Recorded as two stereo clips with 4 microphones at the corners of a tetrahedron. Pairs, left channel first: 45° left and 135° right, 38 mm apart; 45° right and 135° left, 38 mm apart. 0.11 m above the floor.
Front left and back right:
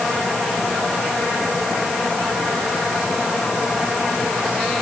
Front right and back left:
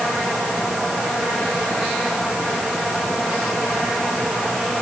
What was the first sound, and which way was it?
Only background noise.